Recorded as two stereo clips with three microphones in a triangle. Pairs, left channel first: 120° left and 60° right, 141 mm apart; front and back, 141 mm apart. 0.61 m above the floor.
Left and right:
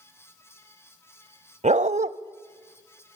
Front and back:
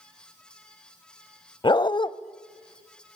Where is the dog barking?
50° right, 0.6 m.